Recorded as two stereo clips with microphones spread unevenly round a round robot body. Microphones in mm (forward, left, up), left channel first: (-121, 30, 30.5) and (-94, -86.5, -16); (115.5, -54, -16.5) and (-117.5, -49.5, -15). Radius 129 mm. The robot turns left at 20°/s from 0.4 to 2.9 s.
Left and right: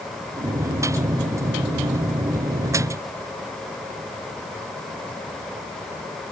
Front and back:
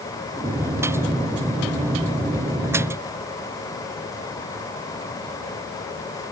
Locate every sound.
Only background noise.